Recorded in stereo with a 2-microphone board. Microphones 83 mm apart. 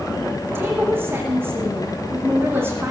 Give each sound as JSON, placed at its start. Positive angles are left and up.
{"t": 0.5, "sound": "a woman speaking", "side_deg": -30, "distance_m": 5.5}